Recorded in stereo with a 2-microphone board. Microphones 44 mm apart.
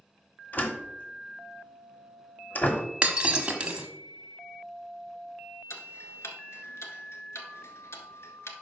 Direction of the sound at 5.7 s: 70° left (ahead or behind).